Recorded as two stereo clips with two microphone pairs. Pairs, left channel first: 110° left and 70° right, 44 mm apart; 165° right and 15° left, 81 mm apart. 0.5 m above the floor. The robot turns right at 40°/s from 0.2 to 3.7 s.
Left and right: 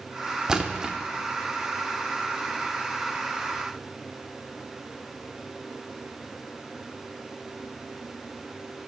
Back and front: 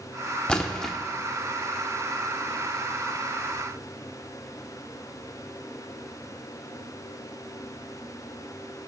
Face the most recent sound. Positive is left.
turn(degrees=20)